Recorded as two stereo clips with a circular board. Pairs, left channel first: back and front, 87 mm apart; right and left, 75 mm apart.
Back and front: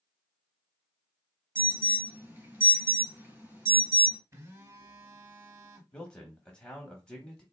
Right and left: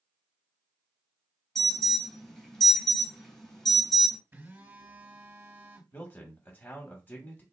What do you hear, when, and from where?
1.6 s an alarm: 15° right, 2.5 m
4.3 s a phone buzzing: 35° left, 1.1 m
5.9 s a man speaking: 115° right, 1.0 m